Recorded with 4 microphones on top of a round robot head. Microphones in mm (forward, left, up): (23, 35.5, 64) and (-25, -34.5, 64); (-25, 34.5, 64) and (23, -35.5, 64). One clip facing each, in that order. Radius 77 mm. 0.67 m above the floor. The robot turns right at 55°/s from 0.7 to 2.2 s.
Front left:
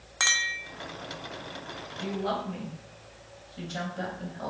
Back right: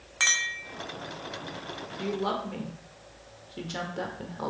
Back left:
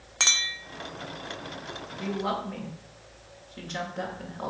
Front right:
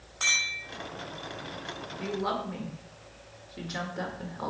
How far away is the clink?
About 1.0 m.